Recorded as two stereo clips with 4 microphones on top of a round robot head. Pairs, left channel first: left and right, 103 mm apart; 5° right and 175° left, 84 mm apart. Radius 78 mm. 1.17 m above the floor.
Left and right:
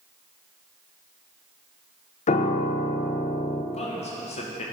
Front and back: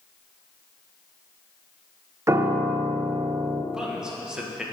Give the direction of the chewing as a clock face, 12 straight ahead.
No chewing in this recording.